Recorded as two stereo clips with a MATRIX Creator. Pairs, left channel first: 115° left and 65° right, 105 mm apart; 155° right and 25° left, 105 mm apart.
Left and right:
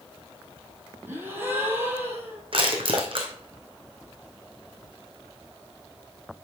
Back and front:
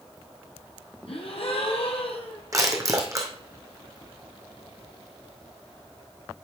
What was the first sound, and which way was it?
A gasp, 135° right.